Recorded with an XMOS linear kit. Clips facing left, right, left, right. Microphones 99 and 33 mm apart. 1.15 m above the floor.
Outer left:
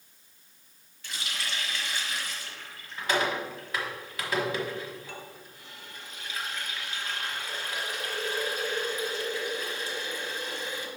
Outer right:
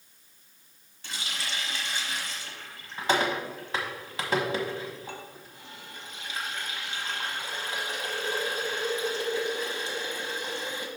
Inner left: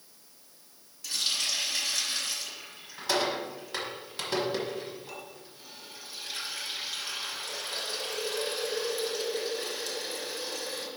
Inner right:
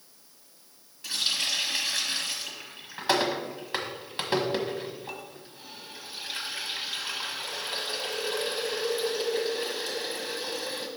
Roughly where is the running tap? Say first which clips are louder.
Even, inner right 2 dB; right.